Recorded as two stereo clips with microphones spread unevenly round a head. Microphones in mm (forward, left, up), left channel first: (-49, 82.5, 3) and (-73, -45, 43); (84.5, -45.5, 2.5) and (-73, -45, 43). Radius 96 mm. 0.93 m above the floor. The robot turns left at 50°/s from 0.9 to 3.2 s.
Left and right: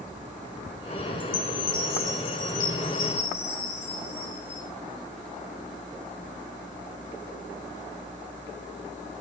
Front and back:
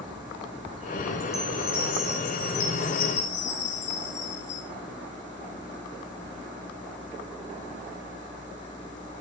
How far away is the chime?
About 5 m.